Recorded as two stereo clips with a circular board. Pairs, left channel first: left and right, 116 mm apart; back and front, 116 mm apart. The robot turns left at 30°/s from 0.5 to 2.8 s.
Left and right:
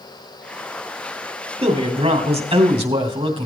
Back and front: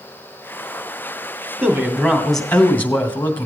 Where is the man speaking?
70° right, 2.5 m; by 3.5 s 105° right, 2.5 m.